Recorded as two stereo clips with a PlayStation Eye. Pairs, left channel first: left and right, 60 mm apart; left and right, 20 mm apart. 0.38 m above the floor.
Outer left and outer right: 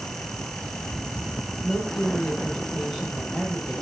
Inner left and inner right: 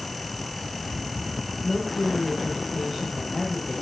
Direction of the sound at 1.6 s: 10° right (ahead or behind).